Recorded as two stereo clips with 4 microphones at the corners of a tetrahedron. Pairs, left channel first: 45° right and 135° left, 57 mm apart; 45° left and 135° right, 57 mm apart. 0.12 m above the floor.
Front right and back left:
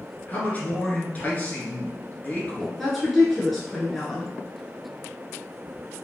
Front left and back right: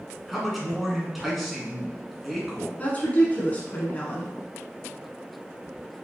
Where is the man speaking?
45° right, 1.7 m.